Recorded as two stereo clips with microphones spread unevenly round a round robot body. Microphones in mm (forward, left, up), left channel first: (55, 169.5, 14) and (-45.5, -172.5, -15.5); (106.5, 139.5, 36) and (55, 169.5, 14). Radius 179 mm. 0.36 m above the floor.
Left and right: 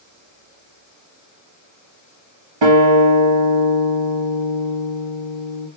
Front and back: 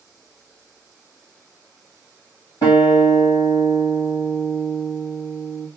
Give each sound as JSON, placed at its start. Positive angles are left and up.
{"t": 2.6, "sound": "a guitar", "azimuth_deg": -75, "distance_m": 1.4}